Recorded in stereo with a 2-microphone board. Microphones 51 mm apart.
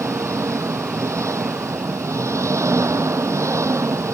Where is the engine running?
85° right.